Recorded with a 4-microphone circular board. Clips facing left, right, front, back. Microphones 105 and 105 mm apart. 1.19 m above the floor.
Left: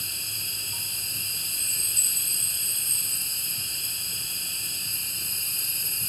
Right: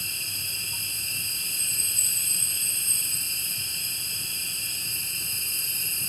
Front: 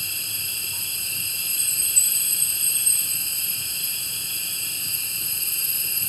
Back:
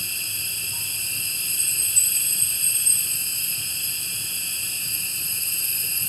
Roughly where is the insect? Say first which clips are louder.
Right 1 dB, back 1 dB; ahead.